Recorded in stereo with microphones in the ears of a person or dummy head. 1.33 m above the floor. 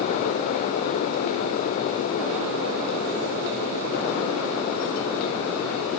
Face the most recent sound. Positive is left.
No sound to turn to.